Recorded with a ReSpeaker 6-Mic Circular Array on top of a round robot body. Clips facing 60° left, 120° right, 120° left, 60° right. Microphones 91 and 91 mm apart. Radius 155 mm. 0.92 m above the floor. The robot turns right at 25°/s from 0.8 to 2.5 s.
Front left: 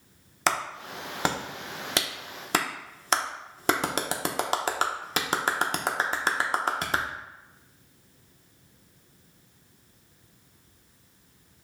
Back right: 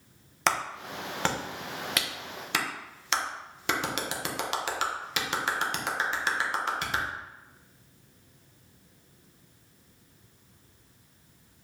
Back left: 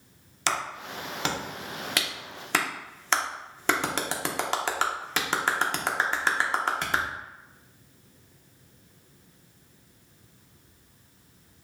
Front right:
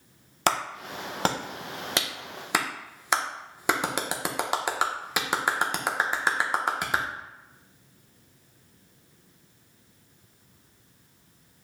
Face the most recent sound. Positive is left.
turn(degrees=15)